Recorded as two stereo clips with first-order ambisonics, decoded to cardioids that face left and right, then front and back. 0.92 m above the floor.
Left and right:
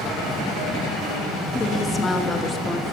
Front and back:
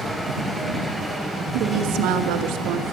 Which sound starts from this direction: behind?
A woman speaking, at 1.5 s.